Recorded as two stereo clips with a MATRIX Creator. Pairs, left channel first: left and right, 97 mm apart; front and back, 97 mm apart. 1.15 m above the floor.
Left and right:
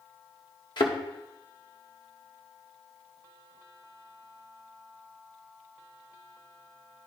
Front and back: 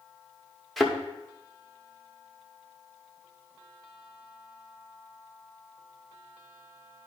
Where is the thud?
90° left, 1.0 m.